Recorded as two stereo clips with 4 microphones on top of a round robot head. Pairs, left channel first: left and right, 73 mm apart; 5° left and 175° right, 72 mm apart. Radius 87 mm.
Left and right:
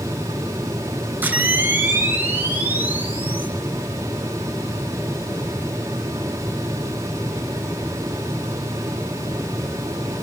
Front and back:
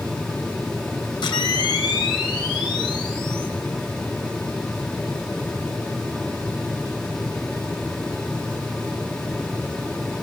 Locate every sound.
1.2 s a camera shutter: 25° right, 4 m